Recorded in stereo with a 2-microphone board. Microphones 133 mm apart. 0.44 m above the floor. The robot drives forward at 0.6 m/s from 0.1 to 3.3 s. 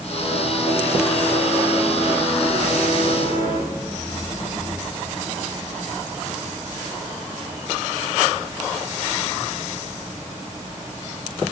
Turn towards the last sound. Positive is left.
turn(degrees=50)  # may be behind; listen again after turning